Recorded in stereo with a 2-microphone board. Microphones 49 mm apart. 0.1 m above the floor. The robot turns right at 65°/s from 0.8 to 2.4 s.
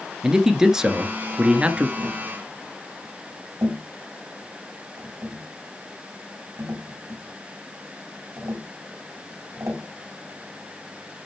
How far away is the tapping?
About 6.5 m.